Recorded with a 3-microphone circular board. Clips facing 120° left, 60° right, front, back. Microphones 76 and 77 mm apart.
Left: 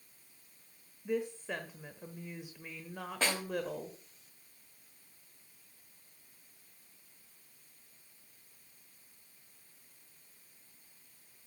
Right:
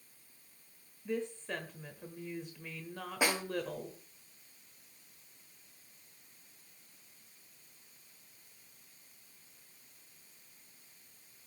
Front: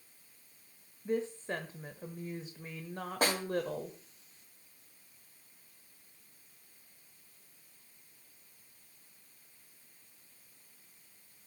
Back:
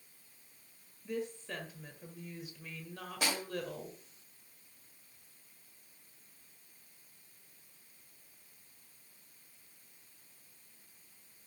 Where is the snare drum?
15° left, 2.0 m.